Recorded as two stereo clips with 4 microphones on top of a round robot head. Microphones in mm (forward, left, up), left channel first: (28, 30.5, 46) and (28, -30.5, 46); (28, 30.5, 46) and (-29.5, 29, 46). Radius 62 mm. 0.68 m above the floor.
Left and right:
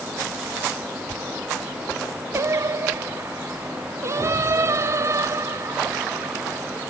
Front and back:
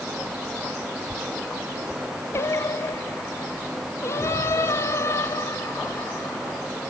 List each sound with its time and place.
2.3 s singing: 50° right